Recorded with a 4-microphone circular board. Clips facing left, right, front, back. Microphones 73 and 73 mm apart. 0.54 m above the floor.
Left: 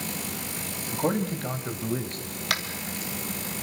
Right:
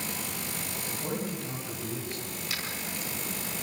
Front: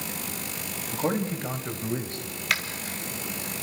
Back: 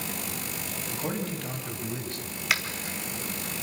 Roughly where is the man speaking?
Ahead left.